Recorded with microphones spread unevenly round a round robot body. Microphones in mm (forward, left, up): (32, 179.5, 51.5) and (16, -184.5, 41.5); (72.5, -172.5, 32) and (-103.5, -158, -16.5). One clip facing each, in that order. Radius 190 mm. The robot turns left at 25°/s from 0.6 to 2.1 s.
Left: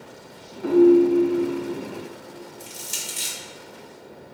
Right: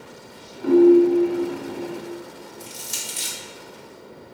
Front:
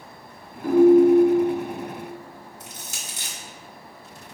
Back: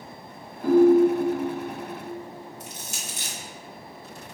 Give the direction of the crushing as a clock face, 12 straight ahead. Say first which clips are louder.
Right 1 dB, back 2 dB; 12 o'clock.